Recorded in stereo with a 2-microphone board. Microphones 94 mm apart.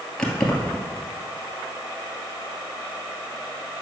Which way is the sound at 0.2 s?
10° left (ahead or behind).